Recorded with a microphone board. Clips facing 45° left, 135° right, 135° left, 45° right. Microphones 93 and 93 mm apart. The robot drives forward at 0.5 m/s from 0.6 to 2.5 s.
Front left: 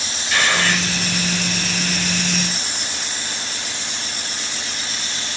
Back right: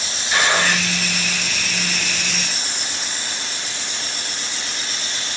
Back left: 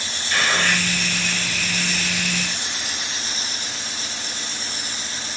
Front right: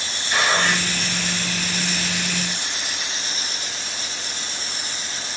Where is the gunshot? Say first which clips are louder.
Back right 1 dB, front right 1 dB; 95° right, 1.2 m; by 0.9 s 110° right, 1.2 m.